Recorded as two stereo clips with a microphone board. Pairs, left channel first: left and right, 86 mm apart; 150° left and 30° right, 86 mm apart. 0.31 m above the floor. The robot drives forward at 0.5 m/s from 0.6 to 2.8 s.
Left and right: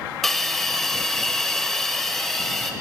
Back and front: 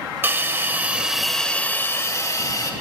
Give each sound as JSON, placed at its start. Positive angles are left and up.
{"t": 0.2, "sound": "a hiss", "azimuth_deg": 5, "distance_m": 0.6}